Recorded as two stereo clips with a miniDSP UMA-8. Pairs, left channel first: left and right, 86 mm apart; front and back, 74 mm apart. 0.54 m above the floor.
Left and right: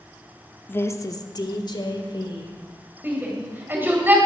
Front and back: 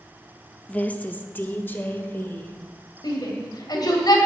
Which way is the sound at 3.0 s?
25° right.